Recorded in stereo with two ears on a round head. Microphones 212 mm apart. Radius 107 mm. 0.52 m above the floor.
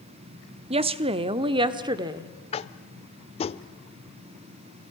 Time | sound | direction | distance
0.7 | a woman speaking | 25° right (ahead or behind) | 0.8 m
2.5 | tapping | 25° left (ahead or behind) | 0.6 m